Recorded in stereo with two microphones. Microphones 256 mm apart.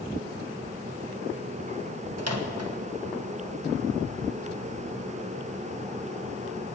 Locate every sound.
2.2 s a microwave: 75° right (ahead or behind), 1.5 m